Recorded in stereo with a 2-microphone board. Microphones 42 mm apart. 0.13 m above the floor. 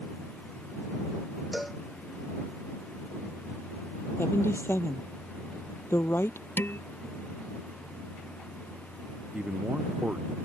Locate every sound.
1.5 s a cowbell: centre (ahead or behind)
4.2 s a woman speaking: 70° left (ahead or behind)
6.6 s dishes clattering: 65° left (ahead or behind)
9.3 s a man speaking: 25° right (ahead or behind)